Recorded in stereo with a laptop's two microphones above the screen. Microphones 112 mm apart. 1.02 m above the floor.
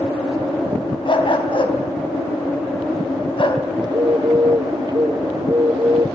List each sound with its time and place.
1.1 s a dog barking: 50° left (ahead or behind), 3.5 m
3.8 s a bird: 45° right (ahead or behind), 2 m